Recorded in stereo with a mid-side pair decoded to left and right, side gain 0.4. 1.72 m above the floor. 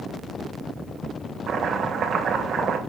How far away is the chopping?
About 3.5 m.